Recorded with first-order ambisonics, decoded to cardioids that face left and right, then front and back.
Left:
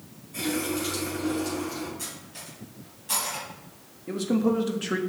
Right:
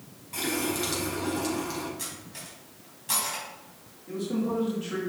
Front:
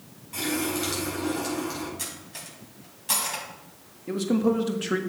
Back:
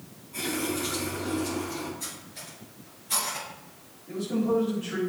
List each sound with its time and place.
0.3 s a running tap: 55° right, 4.5 m
2.0 s cutlery clinking: 15° right, 4 m
4.1 s a man speaking: 40° left, 1.4 m